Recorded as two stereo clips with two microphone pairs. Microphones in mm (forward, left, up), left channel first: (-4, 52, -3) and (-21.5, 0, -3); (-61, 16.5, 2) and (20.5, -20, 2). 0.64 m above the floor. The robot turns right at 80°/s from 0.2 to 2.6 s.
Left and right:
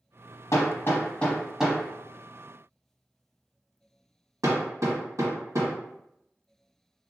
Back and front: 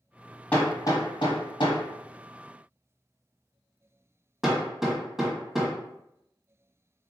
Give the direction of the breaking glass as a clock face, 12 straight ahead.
I don't hear breaking glass.